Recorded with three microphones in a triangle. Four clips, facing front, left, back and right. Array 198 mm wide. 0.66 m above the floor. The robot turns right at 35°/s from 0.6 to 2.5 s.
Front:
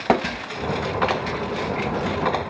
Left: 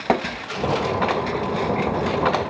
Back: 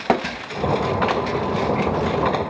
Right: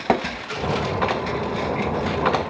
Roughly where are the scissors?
No scissors in this recording.